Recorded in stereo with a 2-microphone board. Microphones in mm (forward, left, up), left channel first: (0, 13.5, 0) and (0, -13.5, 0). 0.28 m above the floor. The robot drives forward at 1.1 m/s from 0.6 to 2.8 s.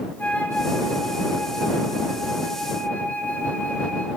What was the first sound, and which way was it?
A flute, 75° left (ahead or behind).